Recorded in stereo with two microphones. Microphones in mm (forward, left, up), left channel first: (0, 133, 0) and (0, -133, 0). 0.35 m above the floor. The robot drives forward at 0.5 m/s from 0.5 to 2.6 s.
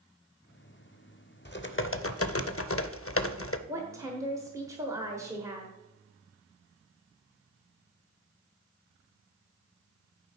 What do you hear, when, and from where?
1.4 s typing on a keyboard: 40° left (ahead or behind), 0.6 m; by 3.6 s 50° left (ahead or behind), 0.5 m
3.7 s a woman speaking: 10° right (ahead or behind), 1.2 m